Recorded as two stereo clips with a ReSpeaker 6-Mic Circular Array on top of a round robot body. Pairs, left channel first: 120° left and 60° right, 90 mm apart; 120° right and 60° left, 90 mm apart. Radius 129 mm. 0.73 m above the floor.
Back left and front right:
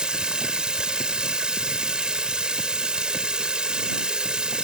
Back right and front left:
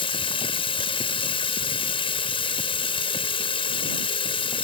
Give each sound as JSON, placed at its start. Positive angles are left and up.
{"t": 0.0, "sound": "running water", "azimuth_deg": -140}